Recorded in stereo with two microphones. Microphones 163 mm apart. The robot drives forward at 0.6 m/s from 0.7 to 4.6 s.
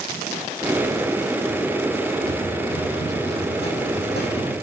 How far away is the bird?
No bird in this recording.